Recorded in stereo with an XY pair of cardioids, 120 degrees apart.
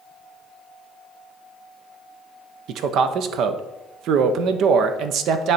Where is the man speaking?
70° right, 0.8 m.